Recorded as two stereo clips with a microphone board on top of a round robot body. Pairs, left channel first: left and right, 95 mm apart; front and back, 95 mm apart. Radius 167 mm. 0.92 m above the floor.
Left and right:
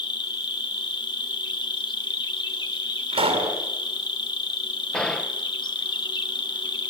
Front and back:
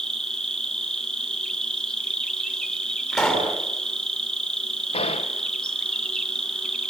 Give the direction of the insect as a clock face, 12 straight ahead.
9 o'clock.